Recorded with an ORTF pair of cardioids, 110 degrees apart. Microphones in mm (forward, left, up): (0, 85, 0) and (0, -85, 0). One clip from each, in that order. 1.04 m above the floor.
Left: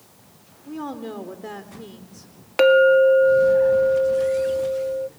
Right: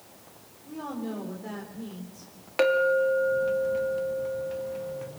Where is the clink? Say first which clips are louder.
Left 9 dB; 30° left, 1.2 m.